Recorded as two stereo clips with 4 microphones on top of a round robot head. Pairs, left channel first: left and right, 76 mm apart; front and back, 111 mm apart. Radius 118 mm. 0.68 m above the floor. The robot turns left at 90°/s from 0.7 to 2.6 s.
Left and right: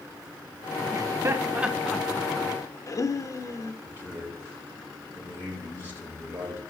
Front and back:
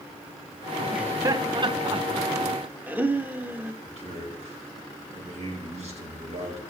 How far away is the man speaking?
About 3.5 m.